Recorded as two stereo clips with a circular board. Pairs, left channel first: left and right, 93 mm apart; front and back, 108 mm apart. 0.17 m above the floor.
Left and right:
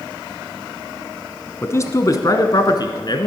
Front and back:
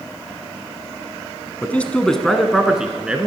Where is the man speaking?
60° left, 1.2 m; by 3.3 s 105° left, 1.8 m.